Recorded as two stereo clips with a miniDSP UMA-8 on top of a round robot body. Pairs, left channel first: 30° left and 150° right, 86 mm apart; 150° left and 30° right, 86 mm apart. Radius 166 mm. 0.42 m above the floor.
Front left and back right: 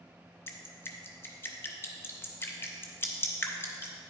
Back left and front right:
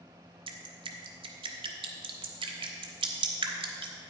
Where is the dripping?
35° right, 0.6 m.